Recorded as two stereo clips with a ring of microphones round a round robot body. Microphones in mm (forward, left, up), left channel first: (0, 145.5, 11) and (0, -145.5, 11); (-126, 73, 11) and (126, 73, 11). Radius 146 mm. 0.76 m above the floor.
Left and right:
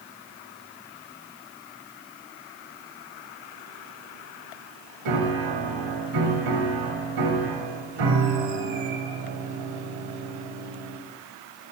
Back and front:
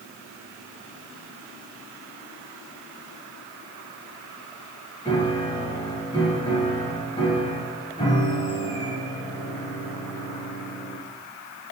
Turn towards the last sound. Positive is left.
turn(degrees=-105)